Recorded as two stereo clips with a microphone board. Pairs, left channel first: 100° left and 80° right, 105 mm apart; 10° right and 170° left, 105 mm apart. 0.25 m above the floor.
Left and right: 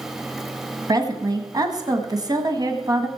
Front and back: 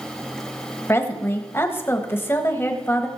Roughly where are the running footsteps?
I don't hear running footsteps.